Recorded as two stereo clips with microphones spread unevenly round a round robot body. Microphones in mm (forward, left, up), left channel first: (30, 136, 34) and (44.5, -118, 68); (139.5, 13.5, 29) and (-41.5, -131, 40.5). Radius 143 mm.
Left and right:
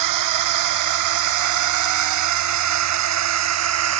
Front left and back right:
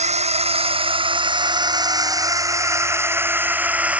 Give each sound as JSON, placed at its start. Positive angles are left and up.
{"t": 0.0, "sound": "a drone", "azimuth_deg": -80}